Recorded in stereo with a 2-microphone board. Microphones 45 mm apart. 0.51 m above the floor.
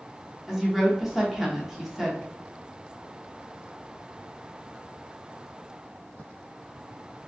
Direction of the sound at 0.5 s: 5° right (ahead or behind).